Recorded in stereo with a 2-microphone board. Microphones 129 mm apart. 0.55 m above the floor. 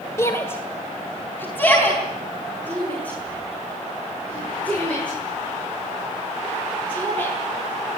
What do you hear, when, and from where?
0.2 s a shout: 20° left (ahead or behind), 1.8 m; by 7.3 s 10° left (ahead or behind), 12.5 m